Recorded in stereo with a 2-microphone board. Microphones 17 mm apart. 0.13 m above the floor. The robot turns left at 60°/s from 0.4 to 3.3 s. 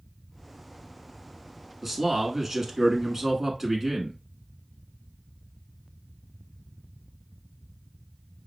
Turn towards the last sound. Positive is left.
turn(degrees=-15)  # may be behind; listen again after turning